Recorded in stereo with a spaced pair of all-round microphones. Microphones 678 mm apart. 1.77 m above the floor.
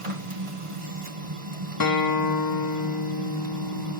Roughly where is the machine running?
Right.